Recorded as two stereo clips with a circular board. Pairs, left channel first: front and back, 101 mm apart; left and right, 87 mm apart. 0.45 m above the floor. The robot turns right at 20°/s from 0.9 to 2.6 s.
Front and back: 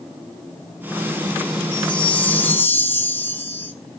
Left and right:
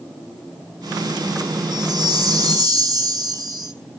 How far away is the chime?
About 2 m.